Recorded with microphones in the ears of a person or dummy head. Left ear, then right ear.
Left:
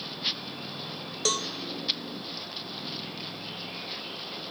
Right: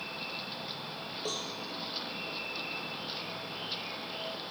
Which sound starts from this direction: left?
A cowbell, at 1.2 s.